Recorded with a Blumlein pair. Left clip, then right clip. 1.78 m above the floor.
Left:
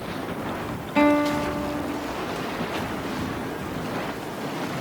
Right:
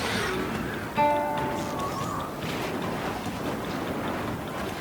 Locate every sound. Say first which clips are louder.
1.0 s a guitar: left 3 dB; 40° left, 2.5 m